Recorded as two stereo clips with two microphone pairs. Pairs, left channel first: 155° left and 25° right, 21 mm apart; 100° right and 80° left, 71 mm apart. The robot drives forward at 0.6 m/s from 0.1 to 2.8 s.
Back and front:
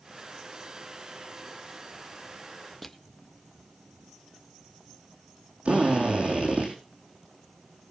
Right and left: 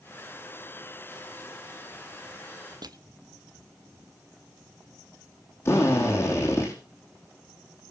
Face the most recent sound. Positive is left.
turn(degrees=-50)